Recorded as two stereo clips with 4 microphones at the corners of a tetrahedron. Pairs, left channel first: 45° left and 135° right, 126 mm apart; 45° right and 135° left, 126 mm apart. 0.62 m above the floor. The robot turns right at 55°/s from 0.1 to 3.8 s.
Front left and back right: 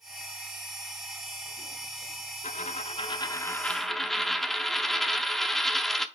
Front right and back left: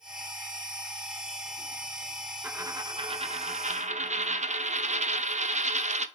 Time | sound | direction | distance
2.4 | a dropped coin | 60° left | 0.6 m